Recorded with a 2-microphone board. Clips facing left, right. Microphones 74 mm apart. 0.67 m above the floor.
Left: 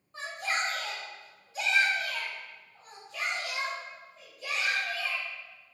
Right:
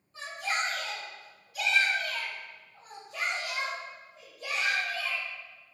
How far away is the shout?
About 1.2 m.